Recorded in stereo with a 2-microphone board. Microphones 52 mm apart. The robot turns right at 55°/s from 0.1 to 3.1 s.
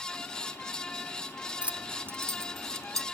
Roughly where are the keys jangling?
Right.